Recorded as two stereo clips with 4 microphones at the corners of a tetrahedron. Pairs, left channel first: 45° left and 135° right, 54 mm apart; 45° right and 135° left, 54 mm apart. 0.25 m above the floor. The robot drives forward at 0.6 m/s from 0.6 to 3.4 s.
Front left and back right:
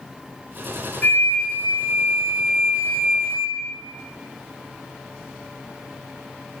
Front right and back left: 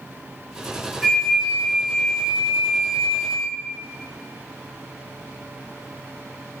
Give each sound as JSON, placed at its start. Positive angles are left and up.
{"t": 1.0, "sound": "a flute", "azimuth_deg": 35, "distance_m": 1.0}